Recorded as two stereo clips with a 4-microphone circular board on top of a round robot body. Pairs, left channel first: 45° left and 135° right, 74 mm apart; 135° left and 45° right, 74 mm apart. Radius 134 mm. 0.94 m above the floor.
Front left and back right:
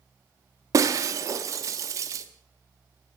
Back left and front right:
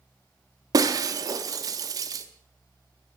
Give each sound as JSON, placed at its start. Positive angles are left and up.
{"t": 0.7, "sound": "breaking glass", "azimuth_deg": -85, "distance_m": 0.7}